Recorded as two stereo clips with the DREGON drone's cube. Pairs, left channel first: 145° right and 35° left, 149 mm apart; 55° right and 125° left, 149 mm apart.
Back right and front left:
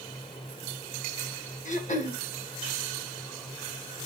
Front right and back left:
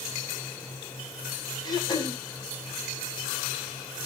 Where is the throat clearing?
115° right, 1.9 m.